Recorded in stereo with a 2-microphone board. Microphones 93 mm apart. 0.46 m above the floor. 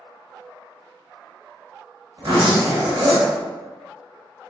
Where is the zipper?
50° right (ahead or behind), 0.9 m.